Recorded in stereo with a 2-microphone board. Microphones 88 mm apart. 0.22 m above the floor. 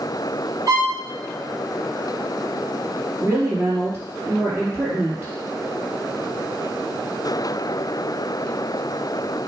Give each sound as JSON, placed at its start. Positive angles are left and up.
{"t": 0.7, "sound": "a violin", "side_deg": -45, "distance_m": 4.0}
{"t": 3.2, "sound": "a woman speaking", "side_deg": -30, "distance_m": 4.0}